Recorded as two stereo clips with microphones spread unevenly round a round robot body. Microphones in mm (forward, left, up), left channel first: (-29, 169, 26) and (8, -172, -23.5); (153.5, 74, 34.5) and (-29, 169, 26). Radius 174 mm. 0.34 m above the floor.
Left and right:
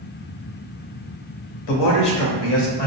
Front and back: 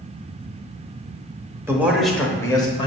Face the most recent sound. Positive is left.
turn(degrees=30)